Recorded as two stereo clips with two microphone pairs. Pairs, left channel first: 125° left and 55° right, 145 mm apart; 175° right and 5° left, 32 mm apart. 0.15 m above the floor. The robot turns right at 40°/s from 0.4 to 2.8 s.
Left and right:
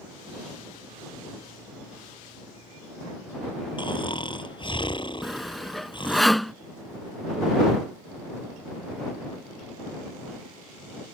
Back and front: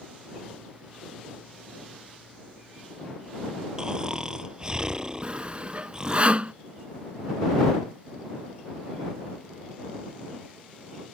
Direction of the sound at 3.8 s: 70° left.